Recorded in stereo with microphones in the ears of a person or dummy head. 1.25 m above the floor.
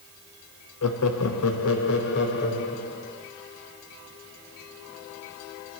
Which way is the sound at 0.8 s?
85° left.